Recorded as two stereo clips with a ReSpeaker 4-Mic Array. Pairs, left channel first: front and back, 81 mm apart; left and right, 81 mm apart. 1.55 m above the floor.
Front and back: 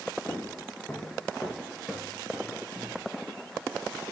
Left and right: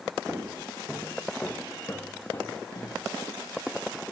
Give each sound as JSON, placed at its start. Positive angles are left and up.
{"t": 0.3, "sound": "footsteps", "azimuth_deg": -30, "distance_m": 1.9}